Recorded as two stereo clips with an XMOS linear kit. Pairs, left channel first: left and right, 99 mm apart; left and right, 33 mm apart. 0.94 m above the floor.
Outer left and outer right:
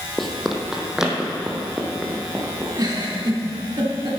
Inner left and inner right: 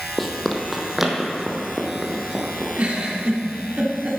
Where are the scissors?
I don't hear scissors.